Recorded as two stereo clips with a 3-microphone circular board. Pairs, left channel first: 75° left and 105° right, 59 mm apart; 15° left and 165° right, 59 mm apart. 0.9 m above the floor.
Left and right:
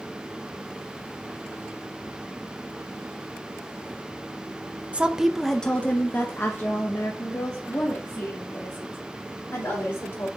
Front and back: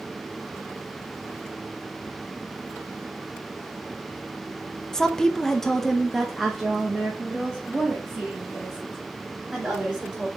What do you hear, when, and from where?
4.9 s a woman speaking: 60° right, 0.7 m; by 10.3 s 110° left, 3.5 m